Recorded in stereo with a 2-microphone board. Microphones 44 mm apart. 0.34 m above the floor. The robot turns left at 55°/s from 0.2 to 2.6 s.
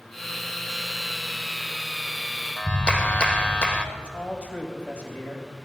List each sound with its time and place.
2.6 s a clap: 25° left (ahead or behind), 0.7 m
4.0 s a man speaking: 30° left (ahead or behind), 1.9 m